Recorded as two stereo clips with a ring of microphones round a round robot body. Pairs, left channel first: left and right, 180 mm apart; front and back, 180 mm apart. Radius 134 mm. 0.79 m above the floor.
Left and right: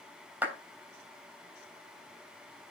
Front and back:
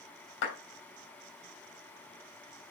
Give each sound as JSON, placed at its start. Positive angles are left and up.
{"t": 0.4, "sound": "a clap", "azimuth_deg": -10, "distance_m": 3.0}